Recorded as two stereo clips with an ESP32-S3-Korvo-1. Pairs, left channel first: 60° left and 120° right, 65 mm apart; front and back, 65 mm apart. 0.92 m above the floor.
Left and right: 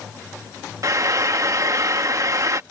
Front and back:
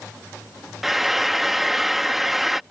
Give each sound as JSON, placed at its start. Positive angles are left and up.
{"t": 0.8, "sound": "frying", "azimuth_deg": -95}